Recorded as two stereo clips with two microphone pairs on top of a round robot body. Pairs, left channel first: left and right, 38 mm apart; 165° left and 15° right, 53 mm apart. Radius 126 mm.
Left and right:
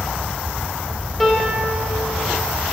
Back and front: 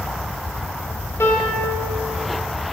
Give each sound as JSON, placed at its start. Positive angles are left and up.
{"t": 1.2, "sound": "a piano", "azimuth_deg": -175, "distance_m": 2.5}